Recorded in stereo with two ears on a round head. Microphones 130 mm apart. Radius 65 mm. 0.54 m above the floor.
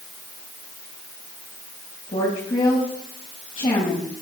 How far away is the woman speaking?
About 4.5 m.